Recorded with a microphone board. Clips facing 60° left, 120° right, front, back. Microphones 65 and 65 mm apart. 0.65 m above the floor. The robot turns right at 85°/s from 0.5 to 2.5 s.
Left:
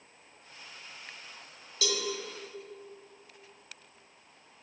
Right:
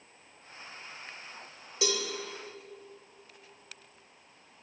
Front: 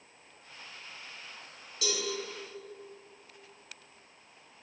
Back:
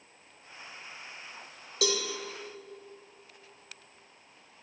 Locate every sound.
1.8 s a cowbell: 170° left, 1.0 m; by 2.0 s 170° right, 1.0 m